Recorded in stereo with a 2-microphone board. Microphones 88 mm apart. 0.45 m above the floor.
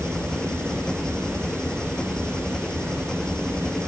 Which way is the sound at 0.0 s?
10° left (ahead or behind).